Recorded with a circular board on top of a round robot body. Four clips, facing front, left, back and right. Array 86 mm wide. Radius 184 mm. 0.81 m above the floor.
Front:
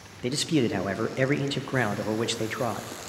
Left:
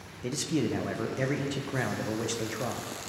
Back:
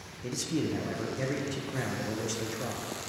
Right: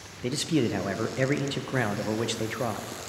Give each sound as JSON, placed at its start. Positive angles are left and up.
{"t": 0.2, "sound": "a man speaking", "azimuth_deg": -20, "distance_m": 0.9}